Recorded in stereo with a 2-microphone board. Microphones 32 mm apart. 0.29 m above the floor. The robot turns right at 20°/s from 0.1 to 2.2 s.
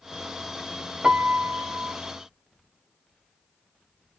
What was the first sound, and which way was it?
A piano, 30° right (ahead or behind).